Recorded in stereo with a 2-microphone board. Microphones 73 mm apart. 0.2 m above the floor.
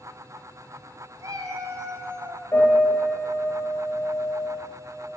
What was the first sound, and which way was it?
A cat meowing, 50° right (ahead or behind).